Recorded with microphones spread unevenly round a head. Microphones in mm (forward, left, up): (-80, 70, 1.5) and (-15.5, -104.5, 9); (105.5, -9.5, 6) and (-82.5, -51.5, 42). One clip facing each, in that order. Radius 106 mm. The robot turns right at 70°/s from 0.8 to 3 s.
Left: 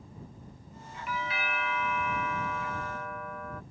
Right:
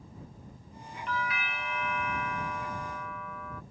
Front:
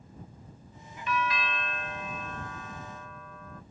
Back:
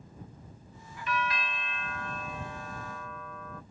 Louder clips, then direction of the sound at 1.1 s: Even, front 2 dB; 25° left.